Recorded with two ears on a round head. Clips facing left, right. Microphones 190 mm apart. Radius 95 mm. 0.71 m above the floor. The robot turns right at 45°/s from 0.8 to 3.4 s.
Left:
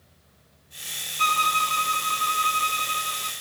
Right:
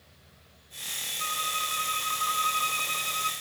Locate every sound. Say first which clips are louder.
1.2 s a violin: left 10 dB; 90° left, 0.6 m; by 3.3 s 175° right, 0.6 m